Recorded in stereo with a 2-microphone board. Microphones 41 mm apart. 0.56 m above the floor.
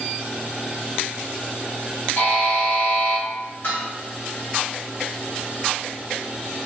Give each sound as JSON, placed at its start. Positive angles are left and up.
{"t": 2.2, "sound": "a buzzer", "side_deg": 45, "distance_m": 1.6}
{"t": 3.6, "sound": "dishes clattering", "side_deg": 60, "distance_m": 1.0}